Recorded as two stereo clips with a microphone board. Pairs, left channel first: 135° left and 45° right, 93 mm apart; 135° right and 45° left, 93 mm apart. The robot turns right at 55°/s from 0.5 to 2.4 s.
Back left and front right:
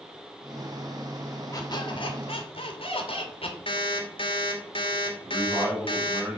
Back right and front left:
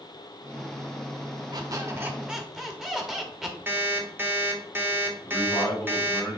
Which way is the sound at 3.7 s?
115° left.